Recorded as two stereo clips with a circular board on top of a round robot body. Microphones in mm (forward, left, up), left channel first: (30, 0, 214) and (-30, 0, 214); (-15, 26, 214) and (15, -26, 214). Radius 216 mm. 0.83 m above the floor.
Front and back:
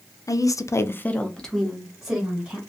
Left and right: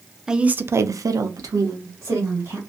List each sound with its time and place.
0.3 s a woman speaking: 20° left, 0.7 m; by 2.6 s 100° right, 1.7 m